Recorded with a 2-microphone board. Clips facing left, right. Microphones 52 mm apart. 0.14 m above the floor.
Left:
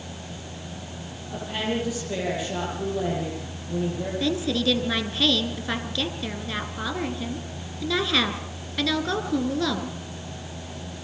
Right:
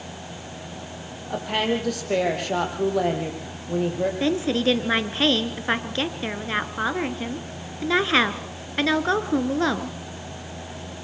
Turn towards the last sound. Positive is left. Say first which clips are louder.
# right 1 dB
turn(degrees=-35)  # may be behind; listen again after turning